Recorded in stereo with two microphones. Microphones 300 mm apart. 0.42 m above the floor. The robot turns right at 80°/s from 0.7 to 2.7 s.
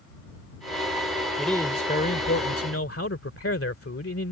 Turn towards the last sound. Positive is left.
turn(degrees=100)